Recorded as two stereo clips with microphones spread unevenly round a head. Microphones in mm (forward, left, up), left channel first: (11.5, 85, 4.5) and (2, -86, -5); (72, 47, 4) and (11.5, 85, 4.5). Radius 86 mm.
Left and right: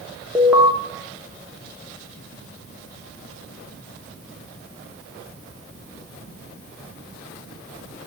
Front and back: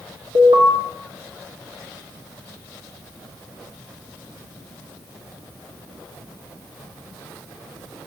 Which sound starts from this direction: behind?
An alarm, at 0.3 s.